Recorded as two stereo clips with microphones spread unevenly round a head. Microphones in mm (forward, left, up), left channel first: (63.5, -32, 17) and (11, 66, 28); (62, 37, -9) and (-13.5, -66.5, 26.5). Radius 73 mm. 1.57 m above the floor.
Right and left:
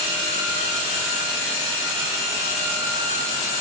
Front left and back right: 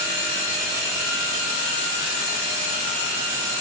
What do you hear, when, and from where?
Only background noise.